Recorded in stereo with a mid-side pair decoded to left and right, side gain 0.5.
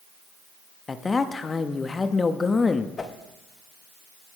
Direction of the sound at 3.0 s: 30° left.